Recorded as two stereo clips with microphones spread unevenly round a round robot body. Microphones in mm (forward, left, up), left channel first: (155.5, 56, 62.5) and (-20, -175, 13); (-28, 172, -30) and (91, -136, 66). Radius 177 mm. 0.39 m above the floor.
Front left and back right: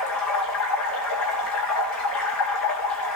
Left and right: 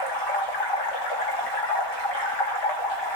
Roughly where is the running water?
Left.